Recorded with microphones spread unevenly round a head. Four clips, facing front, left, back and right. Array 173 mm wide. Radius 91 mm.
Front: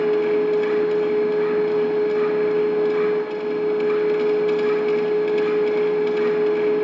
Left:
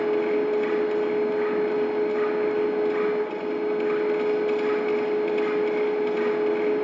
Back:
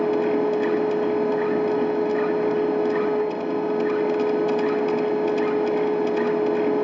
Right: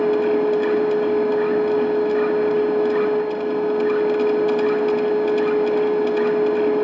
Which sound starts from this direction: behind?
A machine running, at 0.0 s.